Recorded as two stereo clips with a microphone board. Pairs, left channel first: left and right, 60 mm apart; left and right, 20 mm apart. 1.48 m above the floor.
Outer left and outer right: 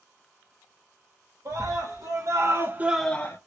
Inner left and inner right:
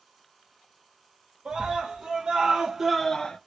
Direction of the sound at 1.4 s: 65° right (ahead or behind).